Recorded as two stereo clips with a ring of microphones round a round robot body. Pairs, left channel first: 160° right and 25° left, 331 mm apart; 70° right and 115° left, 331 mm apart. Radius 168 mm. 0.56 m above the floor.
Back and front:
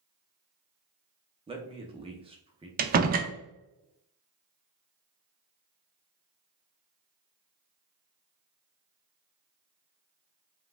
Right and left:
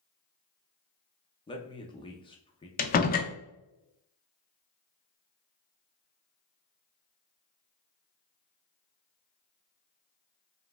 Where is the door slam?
20° right, 0.5 m.